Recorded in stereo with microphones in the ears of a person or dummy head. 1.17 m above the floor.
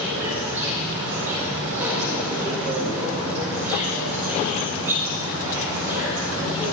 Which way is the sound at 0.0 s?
10° right (ahead or behind).